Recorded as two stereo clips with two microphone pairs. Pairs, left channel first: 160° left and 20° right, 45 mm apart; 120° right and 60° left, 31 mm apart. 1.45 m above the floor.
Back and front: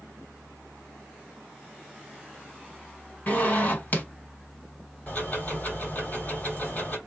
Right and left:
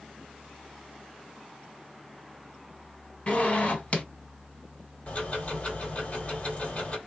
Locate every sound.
3.3 s a zipper: 155° right, 1.9 m
5.1 s ticking: 155° right, 1.7 m